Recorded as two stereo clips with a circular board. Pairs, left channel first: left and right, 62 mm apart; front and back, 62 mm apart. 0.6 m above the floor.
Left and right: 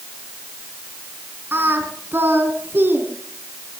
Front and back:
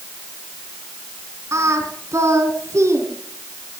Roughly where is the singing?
Behind right.